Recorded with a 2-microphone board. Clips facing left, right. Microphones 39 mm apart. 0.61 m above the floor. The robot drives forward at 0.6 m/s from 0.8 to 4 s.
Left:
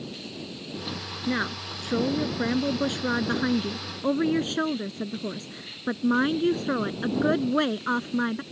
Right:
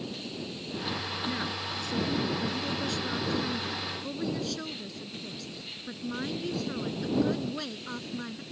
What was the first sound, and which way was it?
A woman speaking, 35° left (ahead or behind).